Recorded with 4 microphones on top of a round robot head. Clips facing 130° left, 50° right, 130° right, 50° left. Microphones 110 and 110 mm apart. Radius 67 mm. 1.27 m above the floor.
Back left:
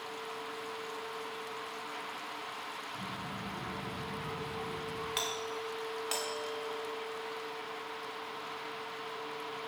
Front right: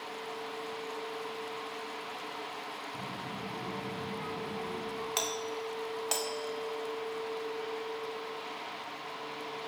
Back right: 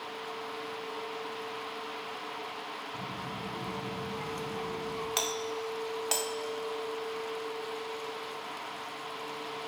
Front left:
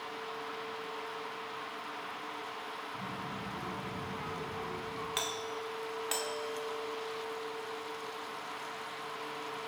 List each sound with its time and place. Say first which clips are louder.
2.9 s a child speaking: front right 1 dB, back right 2 dB; 80° right, 7.5 m
5.2 s a doorbell: front right 2 dB, back right 4 dB; 90° right, 1.7 m